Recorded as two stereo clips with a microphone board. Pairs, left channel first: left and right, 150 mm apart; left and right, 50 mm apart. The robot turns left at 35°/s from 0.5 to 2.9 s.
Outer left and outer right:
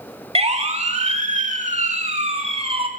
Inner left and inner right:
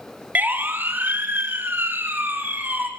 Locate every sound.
0.3 s a siren: 40° right (ahead or behind), 2.5 m